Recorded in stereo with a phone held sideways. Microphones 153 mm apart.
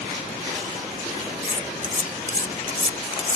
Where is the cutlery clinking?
60° right (ahead or behind).